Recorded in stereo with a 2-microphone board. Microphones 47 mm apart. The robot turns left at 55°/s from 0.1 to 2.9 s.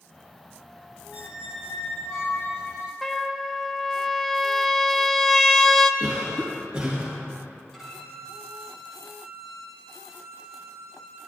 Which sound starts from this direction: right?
A cough, at 6.0 s.